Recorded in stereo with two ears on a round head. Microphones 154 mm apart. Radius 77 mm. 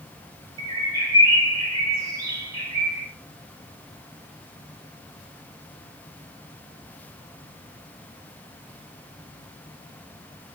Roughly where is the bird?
Right.